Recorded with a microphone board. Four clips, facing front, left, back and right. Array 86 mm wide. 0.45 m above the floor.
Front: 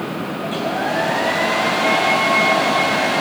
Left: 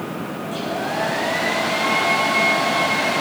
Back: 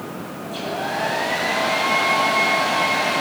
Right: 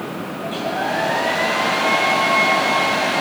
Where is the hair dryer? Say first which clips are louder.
Right 3 dB, front 4 dB; 25° right, 9.5 m.